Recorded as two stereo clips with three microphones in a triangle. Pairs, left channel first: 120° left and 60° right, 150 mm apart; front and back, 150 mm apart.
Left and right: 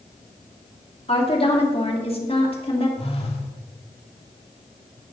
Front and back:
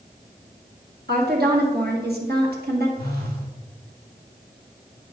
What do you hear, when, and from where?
1.1 s a woman speaking: 175° left, 2 m
3.0 s a phone buzzing: 170° left, 1.9 m